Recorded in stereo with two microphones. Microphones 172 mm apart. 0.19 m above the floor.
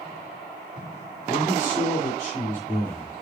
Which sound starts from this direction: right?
A man speaking, at 1.3 s.